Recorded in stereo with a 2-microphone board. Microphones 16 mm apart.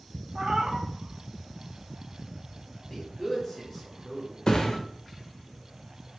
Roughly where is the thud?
Left.